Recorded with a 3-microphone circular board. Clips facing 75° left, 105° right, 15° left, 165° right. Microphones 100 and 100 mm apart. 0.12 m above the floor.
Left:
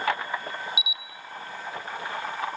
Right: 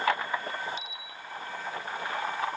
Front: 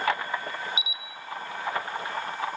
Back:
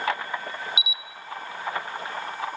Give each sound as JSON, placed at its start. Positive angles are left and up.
{"t": 0.8, "sound": "a camera shutter", "azimuth_deg": -5, "distance_m": 1.0}